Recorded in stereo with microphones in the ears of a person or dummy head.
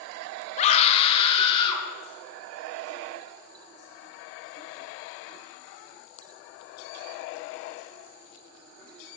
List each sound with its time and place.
0.6 s a scream: 45° left (ahead or behind), 0.9 m; by 1.9 s 35° left (ahead or behind), 3 m